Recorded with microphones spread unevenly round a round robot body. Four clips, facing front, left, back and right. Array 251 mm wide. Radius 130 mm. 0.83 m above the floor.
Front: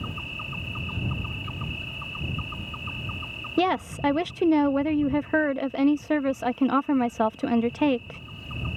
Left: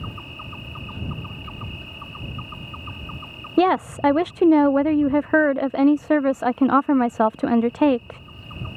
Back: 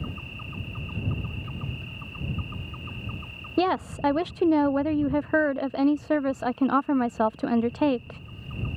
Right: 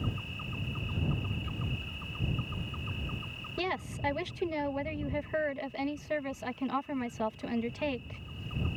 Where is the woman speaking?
80° left.